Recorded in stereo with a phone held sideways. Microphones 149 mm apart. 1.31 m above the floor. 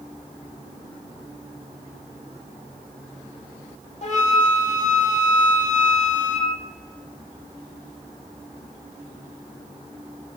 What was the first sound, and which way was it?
A flute, 50° left (ahead or behind).